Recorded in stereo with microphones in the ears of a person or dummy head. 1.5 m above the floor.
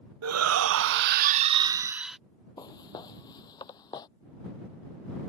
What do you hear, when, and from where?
0.2 s a shout: 85° right; by 2.2 s 5° right (ahead or behind)
2.6 s footsteps: 20° left (ahead or behind)